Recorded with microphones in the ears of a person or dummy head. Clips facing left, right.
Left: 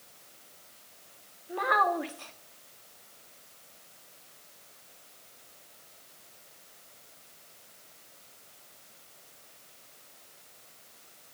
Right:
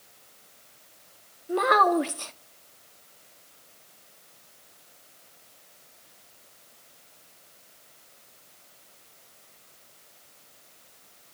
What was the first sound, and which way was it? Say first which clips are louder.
A child speaking: right 7 dB; 55° right (ahead or behind).